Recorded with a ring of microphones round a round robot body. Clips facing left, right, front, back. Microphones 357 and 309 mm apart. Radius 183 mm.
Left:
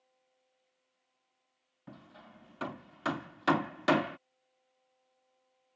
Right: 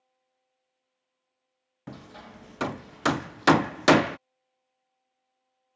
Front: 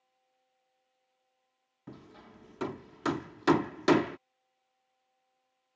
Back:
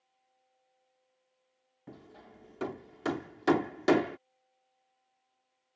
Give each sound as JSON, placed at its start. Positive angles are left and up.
{"t": 1.9, "sound": "hammering", "azimuth_deg": -75}